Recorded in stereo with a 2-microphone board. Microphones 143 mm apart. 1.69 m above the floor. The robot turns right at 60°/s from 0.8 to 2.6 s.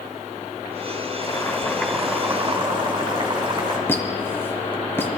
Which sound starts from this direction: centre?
A squeak, at 3.9 s.